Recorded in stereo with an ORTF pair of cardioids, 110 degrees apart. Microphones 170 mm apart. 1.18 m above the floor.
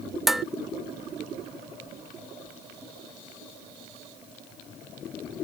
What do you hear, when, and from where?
0.3 s dishes clattering: straight ahead